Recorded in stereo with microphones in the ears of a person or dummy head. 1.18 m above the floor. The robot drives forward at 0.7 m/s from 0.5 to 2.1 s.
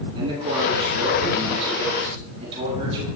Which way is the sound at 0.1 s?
30° right (ahead or behind).